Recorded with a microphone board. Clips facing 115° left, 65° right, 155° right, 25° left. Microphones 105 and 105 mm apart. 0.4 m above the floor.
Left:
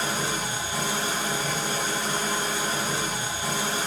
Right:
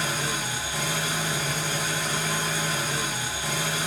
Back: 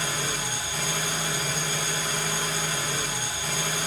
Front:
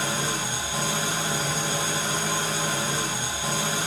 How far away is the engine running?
About 1.2 m.